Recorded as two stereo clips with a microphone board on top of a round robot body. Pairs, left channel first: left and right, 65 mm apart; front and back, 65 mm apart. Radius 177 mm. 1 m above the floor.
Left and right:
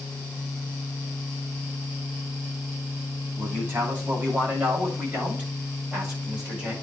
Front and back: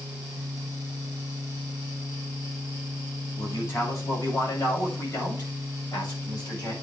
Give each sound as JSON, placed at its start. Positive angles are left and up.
{"t": 3.4, "sound": "a man speaking", "azimuth_deg": -30, "distance_m": 6.5}